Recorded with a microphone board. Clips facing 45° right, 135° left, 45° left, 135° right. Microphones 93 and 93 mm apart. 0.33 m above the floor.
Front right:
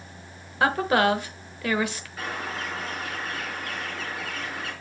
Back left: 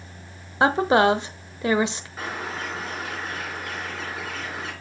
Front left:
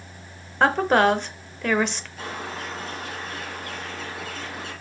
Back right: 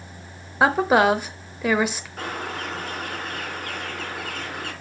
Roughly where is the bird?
Behind.